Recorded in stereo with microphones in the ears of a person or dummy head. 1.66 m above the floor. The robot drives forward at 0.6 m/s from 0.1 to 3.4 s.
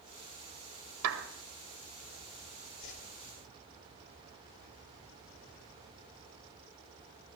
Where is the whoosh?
65° left (ahead or behind), 3.5 m.